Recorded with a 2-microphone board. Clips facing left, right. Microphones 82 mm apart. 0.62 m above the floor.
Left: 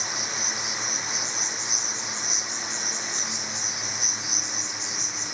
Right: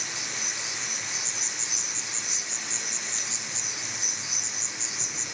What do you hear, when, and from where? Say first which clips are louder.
0.0 s an insect: left 4 dB; 30° right (ahead or behind), 3 m